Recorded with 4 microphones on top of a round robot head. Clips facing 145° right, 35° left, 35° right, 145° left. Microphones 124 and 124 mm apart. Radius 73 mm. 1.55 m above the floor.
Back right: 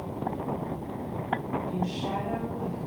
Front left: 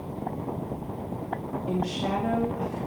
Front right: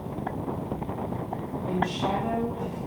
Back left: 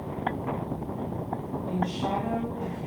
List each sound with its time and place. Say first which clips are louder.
1.7 s a woman speaking: front left 3 dB, front right 2 dB; 55° left, 3.5 m